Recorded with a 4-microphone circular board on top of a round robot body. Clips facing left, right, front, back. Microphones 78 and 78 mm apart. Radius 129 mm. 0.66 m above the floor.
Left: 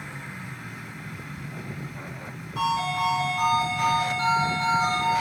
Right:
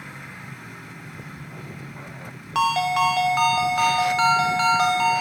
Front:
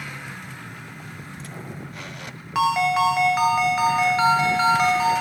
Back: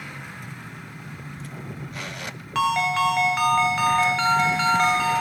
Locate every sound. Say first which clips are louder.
2.5 s a ringtone: right 5 dB, front 2 dB; 80° right, 0.8 m